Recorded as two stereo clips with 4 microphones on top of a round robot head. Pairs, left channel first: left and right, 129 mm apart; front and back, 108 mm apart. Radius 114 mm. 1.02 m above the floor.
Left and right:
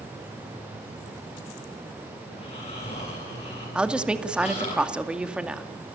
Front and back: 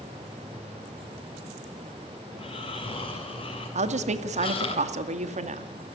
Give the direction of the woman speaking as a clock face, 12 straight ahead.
6 o'clock.